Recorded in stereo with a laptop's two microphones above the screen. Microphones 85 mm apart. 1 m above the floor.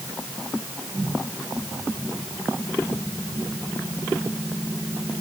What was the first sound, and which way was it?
Only background noise.